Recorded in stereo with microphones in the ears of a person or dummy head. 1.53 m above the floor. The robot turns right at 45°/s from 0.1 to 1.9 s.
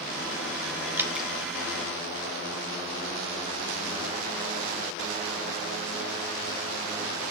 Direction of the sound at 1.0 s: 15° right (ahead or behind).